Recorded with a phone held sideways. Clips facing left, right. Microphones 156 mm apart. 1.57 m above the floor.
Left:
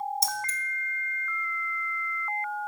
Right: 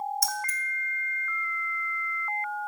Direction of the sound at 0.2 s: 25° left (ahead or behind).